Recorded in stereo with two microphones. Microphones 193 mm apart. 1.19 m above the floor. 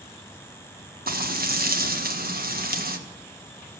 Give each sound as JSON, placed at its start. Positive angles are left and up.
{"t": 1.1, "sound": "frying", "side_deg": -50, "distance_m": 1.4}